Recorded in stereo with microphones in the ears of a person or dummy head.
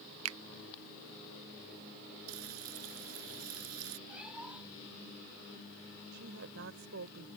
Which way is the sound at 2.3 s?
80° right.